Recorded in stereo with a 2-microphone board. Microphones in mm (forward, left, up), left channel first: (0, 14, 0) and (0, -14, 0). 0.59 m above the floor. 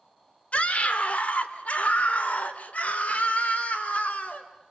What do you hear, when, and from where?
0.5 s a scream: 55° left (ahead or behind), 1.9 m